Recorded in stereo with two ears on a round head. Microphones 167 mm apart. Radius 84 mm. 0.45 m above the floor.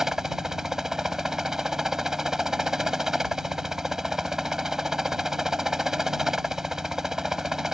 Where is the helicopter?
5° right (ahead or behind).